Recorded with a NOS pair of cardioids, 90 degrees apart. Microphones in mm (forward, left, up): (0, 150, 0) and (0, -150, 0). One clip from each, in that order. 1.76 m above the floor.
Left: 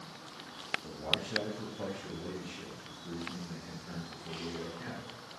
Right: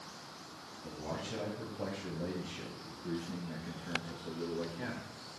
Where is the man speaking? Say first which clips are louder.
Left 4 dB; 15° left, 1.2 m; by 5.1 s 60° right, 2.5 m.